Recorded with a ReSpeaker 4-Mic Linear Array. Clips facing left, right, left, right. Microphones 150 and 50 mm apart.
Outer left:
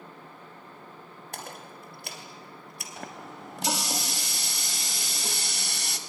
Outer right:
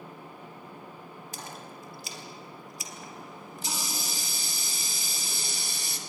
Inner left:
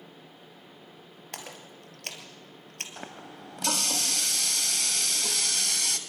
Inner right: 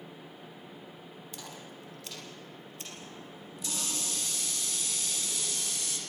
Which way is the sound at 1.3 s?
60° left (ahead or behind).